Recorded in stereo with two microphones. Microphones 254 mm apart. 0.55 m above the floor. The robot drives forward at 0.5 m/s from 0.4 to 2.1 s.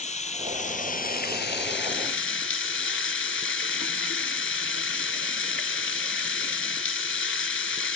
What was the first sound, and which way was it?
Running water, 25° left (ahead or behind).